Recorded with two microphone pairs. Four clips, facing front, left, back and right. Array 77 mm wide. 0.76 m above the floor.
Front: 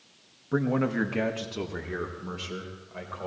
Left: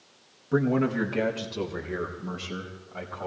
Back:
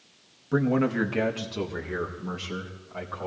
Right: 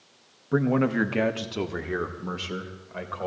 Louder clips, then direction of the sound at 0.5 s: Right 1 dB, back 2 dB; 115° right.